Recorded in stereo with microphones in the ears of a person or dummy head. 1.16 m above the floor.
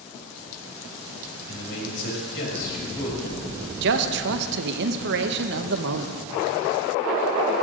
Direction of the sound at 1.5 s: 65° left (ahead or behind).